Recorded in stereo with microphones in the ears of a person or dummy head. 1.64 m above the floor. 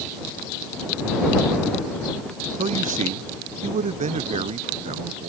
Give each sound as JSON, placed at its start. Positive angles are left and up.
{"t": 2.6, "sound": "a man speaking", "side_deg": -40}